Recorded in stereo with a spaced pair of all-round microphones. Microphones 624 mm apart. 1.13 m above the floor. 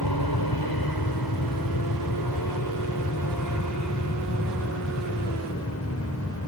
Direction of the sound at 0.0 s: 35° left (ahead or behind).